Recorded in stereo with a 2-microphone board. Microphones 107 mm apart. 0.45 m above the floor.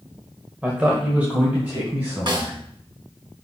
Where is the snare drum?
50° right (ahead or behind), 1.5 m.